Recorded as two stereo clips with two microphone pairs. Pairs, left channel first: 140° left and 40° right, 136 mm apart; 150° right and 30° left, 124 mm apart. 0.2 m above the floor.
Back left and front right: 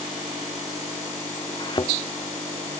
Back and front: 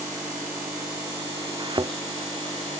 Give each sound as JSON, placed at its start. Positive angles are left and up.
{"t": 1.6, "sound": "a thud", "azimuth_deg": 85}